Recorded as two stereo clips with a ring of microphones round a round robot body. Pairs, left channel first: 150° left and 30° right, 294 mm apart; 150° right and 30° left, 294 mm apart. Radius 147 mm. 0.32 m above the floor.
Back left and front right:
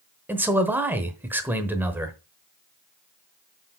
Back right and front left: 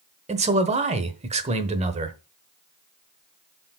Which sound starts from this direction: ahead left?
A man speaking, at 0.3 s.